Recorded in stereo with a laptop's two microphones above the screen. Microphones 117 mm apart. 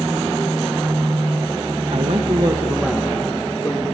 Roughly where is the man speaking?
Right.